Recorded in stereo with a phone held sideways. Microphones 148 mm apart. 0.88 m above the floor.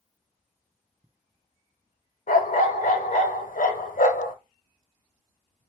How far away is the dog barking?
About 0.9 m.